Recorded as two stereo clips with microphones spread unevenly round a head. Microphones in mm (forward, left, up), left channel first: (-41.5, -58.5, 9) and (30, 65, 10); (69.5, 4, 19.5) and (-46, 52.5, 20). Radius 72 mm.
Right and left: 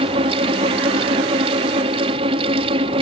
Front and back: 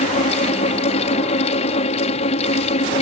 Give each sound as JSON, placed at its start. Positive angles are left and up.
{"t": 0.0, "sound": "a fan", "azimuth_deg": 5}